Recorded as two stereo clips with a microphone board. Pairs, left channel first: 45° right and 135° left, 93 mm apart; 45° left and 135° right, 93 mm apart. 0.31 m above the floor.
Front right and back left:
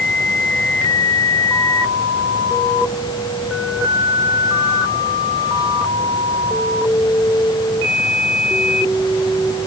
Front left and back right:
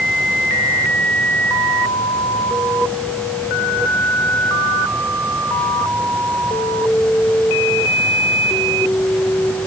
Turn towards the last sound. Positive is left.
No sound to turn to.